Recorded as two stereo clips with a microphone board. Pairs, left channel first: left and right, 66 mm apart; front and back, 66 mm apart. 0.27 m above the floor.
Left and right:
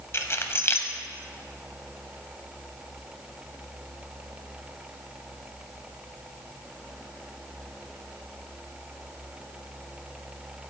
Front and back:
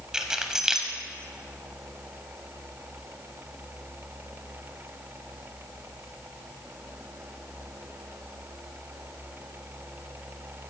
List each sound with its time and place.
0.1 s keys jangling: 100° left, 0.8 m